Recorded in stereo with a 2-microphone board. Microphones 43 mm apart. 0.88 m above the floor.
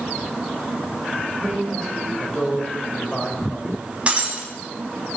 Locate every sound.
1.4 s a man speaking: 20° left (ahead or behind), 5 m
4.1 s breaking glass: 25° right (ahead or behind), 3.5 m